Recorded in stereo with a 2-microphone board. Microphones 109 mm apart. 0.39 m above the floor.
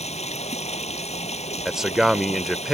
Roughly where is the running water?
Left.